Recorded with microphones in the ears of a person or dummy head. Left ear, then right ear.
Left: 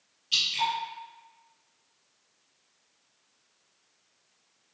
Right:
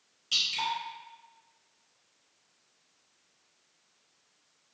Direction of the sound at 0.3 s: 45° right (ahead or behind).